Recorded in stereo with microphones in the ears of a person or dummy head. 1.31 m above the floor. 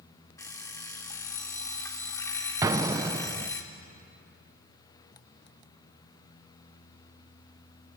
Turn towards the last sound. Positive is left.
turn(degrees=-20)  # may be behind; listen again after turning